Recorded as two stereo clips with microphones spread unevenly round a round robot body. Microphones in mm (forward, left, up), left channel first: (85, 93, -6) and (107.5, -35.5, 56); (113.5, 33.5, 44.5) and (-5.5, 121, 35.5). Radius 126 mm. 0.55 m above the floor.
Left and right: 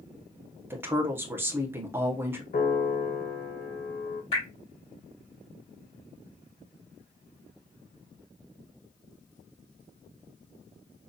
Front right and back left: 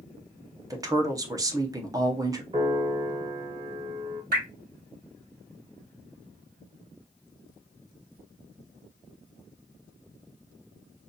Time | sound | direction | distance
0.7 | a woman speaking | 175° left | 0.6 m
2.5 | a piano | 90° left | 1.6 m
4.3 | dripping | 140° left | 3.5 m